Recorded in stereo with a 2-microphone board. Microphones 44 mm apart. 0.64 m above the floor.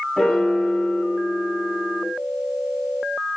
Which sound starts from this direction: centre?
A piano, at 0.2 s.